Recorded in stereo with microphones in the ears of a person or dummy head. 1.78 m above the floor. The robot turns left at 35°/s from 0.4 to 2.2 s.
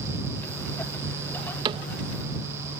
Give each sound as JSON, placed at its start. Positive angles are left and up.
{"t": 1.6, "sound": "a cupboard door", "side_deg": -20}